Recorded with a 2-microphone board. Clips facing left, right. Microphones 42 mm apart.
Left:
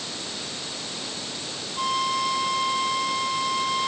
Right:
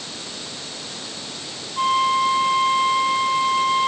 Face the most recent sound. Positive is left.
turn(degrees=-25)  # may be behind; listen again after turning